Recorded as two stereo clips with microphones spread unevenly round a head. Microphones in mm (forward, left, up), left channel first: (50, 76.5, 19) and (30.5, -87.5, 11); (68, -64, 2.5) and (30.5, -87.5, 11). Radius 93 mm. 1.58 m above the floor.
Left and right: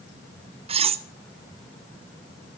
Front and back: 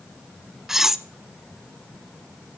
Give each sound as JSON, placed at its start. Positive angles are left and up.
{"t": 0.7, "sound": "cutlery clinking", "azimuth_deg": -100, "distance_m": 0.7}